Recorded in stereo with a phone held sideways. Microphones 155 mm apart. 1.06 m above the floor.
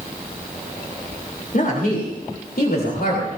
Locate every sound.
1.5 s a woman speaking: 65° left (ahead or behind), 3.5 m; by 3.3 s 85° left, 3.5 m